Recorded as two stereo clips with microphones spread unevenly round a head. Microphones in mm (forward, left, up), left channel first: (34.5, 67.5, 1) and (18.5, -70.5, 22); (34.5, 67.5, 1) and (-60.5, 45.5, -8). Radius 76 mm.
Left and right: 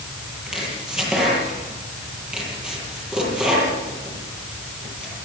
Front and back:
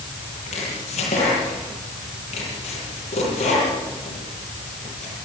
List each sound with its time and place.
0.5 s chopping: 15° right, 9.5 m